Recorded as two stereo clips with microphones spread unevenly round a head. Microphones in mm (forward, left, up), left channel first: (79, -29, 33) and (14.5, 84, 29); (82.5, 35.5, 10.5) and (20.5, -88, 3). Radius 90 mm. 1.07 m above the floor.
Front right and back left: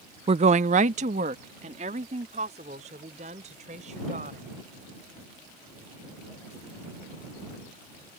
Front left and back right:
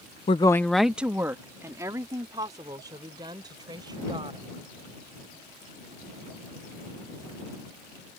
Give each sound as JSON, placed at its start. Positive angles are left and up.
{"t": 0.3, "sound": "a woman speaking", "azimuth_deg": 100}